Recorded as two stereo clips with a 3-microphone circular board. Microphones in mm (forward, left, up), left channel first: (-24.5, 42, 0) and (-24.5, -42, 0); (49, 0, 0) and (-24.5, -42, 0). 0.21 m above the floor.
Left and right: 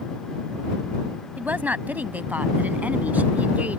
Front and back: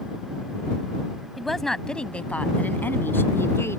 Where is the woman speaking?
65° right; by 3.8 s 20° right.